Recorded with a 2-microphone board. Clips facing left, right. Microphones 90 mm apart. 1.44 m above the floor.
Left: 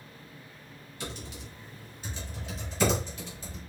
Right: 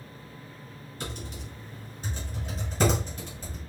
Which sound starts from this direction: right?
Typing on a keyboard, at 1.0 s.